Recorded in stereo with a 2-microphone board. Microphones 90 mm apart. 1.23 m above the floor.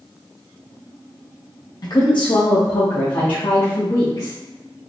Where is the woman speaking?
50° left (ahead or behind), 0.7 m; by 4.4 s 55° left (ahead or behind), 1.4 m.